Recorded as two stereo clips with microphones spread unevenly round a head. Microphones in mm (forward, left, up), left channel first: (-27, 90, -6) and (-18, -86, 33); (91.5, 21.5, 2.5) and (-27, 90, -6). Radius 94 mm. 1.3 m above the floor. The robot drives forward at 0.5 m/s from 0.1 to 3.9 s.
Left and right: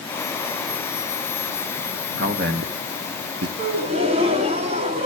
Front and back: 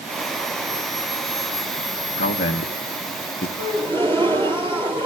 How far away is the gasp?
About 1.8 m.